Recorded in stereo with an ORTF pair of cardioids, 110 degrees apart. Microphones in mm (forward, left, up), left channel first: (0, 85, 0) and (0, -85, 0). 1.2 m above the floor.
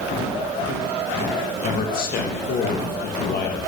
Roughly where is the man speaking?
Ahead left.